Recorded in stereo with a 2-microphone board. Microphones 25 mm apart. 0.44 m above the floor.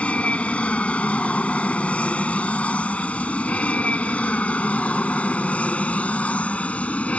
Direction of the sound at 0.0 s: 60° left (ahead or behind).